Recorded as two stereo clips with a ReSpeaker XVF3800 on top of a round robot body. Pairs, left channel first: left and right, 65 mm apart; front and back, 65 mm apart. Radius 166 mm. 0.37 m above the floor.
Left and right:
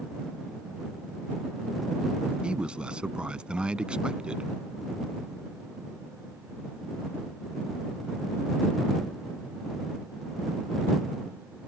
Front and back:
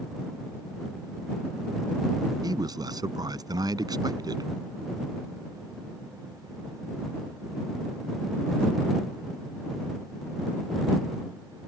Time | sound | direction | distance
2.4 | a man speaking | 165° right | ?